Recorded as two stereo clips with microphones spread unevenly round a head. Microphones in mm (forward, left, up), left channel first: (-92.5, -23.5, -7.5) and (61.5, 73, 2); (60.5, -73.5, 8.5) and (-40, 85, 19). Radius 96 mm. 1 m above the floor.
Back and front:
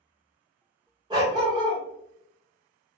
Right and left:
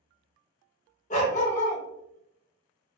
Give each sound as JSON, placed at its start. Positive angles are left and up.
{"t": 1.1, "sound": "a dog barking", "azimuth_deg": -20, "distance_m": 0.8}